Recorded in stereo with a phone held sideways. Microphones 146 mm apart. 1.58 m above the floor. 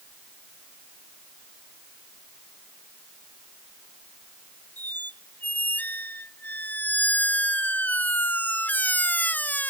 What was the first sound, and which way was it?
A squeak, 10° left (ahead or behind).